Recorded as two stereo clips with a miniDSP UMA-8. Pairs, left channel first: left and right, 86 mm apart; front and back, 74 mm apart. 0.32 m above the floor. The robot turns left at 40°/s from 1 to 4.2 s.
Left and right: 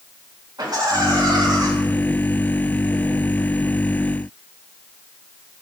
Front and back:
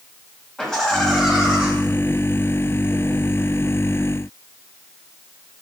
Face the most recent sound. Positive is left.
turn(degrees=155)